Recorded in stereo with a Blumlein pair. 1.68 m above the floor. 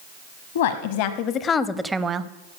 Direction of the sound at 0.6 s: 60° left.